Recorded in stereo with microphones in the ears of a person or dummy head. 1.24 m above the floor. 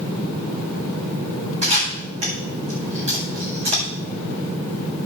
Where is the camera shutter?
30° right (ahead or behind), 7.5 m.